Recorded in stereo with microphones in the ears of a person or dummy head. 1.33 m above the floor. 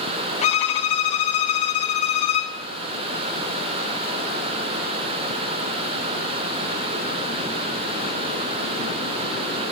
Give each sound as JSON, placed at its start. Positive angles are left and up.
{"t": 0.4, "sound": "a violin", "side_deg": 35, "distance_m": 0.6}